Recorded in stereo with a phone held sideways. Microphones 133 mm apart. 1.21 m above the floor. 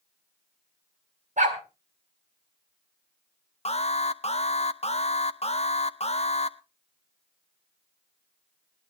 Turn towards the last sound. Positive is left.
turn(degrees=50)  # may be behind; listen again after turning